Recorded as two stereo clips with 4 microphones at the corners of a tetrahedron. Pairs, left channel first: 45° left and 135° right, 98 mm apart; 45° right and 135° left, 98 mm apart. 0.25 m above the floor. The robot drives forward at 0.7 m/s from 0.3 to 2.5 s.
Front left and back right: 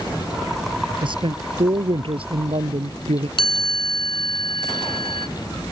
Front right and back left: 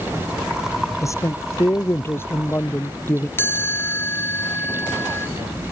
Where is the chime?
20° left.